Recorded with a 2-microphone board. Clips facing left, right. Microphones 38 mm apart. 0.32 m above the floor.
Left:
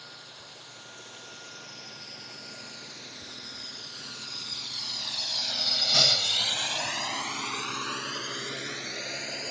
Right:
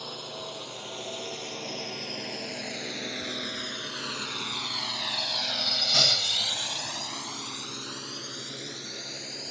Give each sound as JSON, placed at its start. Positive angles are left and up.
{"t": 0.0, "sound": "a drone", "side_deg": -75}